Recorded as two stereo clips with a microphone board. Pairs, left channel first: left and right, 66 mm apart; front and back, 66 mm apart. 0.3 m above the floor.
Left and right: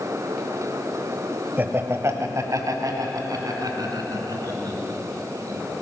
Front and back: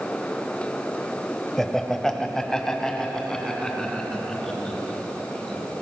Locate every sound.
1.6 s laughter: 80° right, 0.9 m